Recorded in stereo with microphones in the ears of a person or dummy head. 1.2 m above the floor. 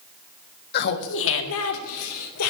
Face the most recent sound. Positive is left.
turn(degrees=85)